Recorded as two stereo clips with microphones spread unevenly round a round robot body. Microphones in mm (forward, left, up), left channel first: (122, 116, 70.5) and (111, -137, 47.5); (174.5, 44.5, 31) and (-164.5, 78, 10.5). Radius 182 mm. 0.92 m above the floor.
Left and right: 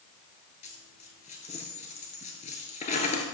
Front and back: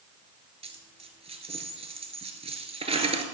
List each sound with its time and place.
0.6 s a dropped coin: 110° left, 1.0 m